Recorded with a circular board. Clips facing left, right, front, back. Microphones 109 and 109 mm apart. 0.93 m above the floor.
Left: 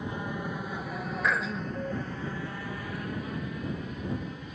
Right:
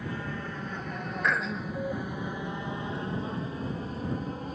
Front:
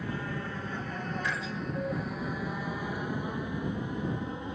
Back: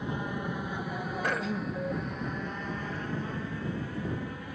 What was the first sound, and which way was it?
An aircraft, 135° left.